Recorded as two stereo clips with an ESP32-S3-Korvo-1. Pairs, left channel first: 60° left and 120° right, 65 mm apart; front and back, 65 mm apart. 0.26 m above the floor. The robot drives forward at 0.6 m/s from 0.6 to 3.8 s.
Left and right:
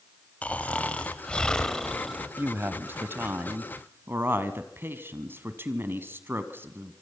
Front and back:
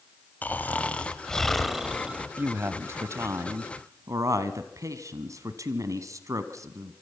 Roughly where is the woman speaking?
Behind right.